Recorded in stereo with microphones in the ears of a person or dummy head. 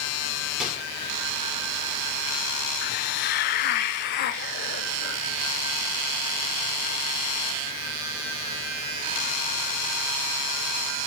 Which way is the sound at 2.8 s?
45° left (ahead or behind).